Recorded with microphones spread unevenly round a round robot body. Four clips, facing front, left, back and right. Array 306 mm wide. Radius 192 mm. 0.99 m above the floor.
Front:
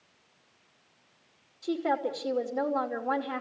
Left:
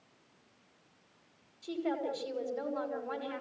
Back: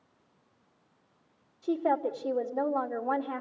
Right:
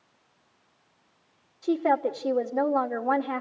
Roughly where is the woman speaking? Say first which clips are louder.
Right 11 dB, back 1 dB; right.